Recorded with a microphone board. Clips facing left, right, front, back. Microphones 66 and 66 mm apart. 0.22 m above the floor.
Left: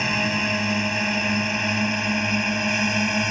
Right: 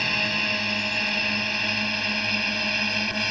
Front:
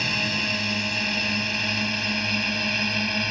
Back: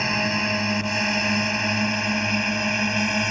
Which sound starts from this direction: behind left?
A drone, at 0.0 s.